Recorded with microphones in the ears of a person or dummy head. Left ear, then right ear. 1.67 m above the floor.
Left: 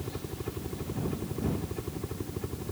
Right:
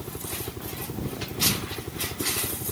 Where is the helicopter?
5° right (ahead or behind); by 2.7 s 20° right (ahead or behind).